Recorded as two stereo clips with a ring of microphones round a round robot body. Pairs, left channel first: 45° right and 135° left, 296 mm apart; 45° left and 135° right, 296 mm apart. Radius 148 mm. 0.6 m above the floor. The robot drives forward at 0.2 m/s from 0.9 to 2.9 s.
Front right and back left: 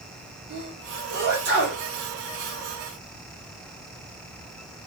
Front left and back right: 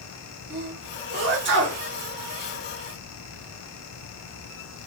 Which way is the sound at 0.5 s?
Straight behind.